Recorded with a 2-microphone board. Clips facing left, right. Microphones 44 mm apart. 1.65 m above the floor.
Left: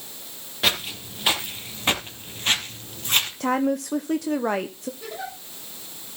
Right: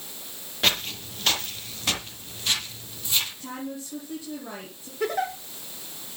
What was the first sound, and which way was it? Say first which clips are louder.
Footsteps: left 1 dB; 5° left (ahead or behind).